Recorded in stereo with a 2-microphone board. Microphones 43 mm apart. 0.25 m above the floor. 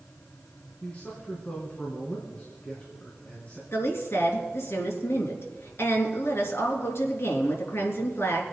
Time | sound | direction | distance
0.8 | a man speaking | 35° left (ahead or behind) | 3 m
3.7 | a woman speaking | 70° left (ahead or behind) | 3 m